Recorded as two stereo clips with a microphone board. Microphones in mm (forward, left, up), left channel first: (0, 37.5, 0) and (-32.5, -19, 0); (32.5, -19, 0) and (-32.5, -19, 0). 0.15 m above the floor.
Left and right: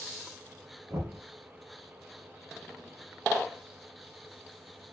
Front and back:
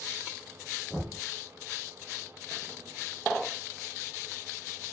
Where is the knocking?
110° right, 1.2 m.